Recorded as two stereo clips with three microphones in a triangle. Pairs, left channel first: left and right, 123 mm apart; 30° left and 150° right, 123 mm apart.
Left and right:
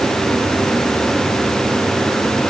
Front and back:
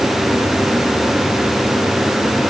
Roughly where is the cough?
I don't hear a cough.